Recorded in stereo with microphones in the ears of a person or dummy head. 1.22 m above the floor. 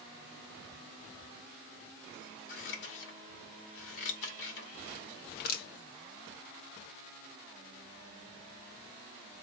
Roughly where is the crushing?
Left.